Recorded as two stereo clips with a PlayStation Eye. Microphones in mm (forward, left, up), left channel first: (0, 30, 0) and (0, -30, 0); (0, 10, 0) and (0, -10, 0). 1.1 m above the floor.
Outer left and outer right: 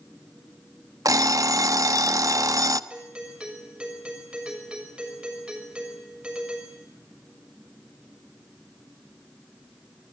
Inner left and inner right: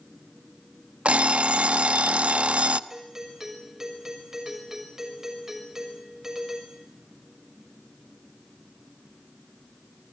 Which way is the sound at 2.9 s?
20° right (ahead or behind).